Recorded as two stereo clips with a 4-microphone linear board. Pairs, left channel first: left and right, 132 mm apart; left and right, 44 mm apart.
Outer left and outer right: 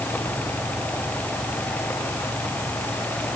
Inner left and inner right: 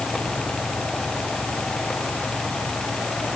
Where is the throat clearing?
No throat clearing in this recording.